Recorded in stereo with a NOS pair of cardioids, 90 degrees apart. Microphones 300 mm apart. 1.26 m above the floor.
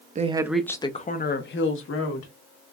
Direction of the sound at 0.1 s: 25° right.